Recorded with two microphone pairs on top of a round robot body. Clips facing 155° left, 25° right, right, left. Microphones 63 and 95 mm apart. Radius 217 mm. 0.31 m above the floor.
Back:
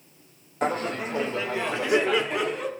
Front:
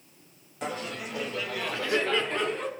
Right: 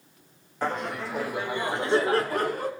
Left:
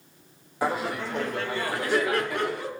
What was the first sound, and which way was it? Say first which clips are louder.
Laughter: back 8 dB, left 2 dB; 160° left.